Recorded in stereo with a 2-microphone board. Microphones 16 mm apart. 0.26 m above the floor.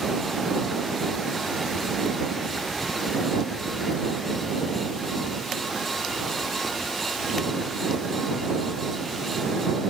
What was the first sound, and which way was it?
Only background noise.